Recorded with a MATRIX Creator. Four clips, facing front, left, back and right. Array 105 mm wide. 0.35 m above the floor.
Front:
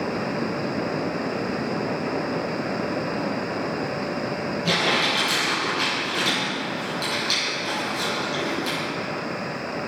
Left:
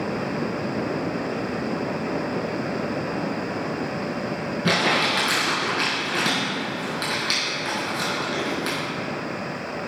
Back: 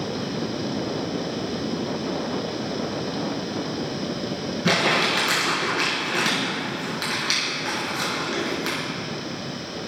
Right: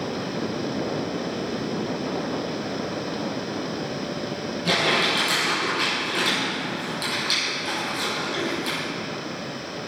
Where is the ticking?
I don't hear ticking.